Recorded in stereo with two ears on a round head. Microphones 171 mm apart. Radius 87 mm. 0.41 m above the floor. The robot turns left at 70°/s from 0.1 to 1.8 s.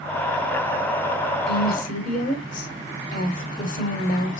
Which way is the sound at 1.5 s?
55° left (ahead or behind).